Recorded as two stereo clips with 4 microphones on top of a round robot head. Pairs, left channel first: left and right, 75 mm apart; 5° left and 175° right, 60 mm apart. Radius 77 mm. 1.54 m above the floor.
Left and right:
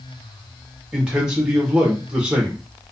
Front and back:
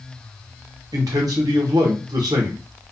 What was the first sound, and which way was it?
A man speaking, 170° right.